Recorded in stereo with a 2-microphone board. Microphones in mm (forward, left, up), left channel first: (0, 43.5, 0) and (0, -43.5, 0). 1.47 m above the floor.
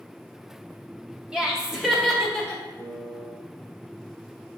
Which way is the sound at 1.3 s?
10° right (ahead or behind).